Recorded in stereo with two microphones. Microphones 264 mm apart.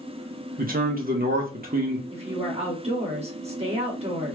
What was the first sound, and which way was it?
A man speaking, 35° right (ahead or behind).